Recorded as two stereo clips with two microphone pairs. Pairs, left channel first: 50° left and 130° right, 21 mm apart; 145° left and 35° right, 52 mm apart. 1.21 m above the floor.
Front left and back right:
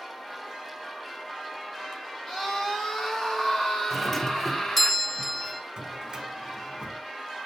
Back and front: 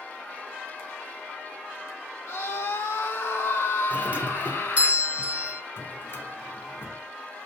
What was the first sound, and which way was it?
A scream, 120° left.